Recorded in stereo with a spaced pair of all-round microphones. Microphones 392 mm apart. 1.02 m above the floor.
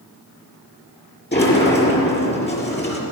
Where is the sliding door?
25° left (ahead or behind), 5.5 m.